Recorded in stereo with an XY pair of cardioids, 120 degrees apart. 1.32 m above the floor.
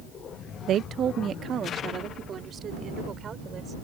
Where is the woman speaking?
65° right; by 3.7 s 45° right.